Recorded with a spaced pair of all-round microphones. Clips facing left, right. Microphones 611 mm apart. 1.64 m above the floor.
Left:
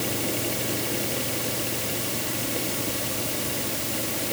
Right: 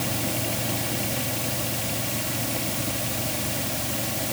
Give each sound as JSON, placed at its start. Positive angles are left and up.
{"t": 0.0, "sound": "a fan", "side_deg": -20}